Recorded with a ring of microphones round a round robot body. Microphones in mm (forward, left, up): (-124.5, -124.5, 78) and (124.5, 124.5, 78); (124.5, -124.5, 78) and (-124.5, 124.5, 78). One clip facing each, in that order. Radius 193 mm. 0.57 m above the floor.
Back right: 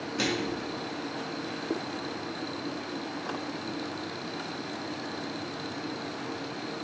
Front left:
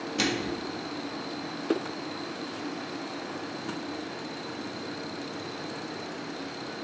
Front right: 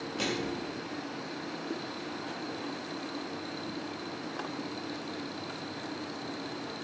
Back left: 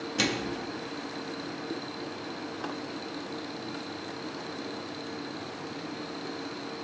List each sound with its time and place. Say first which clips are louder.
0.2 s a microwave: even, back left 2 dB; 115° left, 0.6 m